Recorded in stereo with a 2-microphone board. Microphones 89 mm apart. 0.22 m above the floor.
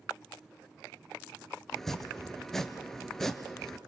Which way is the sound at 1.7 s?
5° left (ahead or behind).